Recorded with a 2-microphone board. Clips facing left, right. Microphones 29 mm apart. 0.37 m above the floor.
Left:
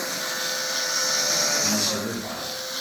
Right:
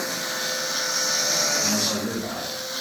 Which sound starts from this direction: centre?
A man speaking, at 1.6 s.